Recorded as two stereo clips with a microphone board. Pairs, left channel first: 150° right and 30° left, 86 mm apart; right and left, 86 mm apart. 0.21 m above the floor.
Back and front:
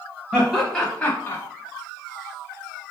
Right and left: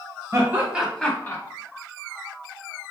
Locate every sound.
0.3 s laughter: 100° left, 1.4 m; by 1.4 s 115° right, 1.3 m